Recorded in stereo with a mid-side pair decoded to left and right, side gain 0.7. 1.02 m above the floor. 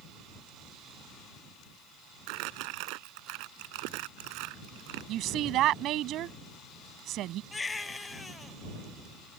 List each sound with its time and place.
2.3 s crumpling: 70° right
5.1 s a woman speaking: 50° right
7.5 s a baby crying: 20° left